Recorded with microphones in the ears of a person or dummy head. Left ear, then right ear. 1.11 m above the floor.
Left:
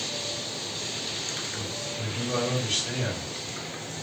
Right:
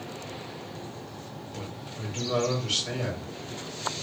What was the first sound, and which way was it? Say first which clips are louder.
A man speaking: left 7 dB; 20° right (ahead or behind).